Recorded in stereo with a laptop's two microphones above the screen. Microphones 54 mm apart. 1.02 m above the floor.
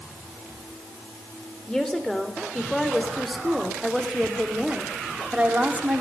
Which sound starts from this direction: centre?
A woman speaking, at 1.7 s.